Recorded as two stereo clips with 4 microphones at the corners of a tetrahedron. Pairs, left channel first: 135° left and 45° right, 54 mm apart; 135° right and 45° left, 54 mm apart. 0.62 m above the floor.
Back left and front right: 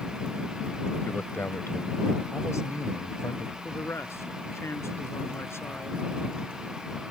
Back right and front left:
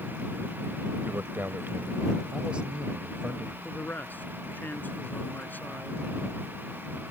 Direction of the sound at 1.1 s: 90° left.